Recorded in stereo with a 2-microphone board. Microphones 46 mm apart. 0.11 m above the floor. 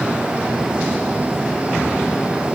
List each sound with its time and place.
Only background noise.